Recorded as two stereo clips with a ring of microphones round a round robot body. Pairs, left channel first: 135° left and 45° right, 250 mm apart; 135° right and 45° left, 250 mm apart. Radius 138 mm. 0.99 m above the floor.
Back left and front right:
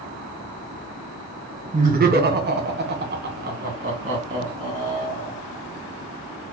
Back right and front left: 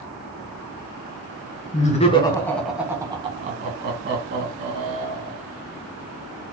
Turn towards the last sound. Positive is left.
turn(degrees=20)